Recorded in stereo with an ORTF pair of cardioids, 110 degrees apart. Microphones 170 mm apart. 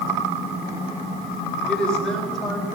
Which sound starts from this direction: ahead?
A woman speaking, at 1.7 s.